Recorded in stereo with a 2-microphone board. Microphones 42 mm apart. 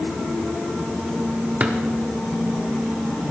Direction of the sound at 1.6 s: 40° right (ahead or behind).